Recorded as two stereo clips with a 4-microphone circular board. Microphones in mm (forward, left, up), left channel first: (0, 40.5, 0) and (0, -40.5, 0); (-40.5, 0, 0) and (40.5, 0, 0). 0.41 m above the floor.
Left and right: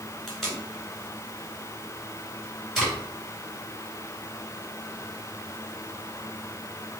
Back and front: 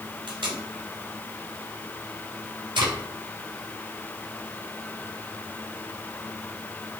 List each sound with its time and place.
0.3 s tape being pulled: 5° left, 2 m